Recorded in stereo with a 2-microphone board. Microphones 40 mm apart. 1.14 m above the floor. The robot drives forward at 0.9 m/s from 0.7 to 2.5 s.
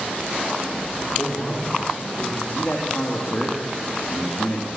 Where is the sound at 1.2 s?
20° left (ahead or behind), 3.5 m; by 2.4 s 15° left (ahead or behind), 4.5 m.